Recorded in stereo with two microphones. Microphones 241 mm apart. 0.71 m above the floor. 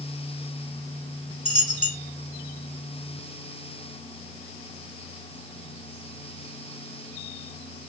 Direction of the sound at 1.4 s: 85° left.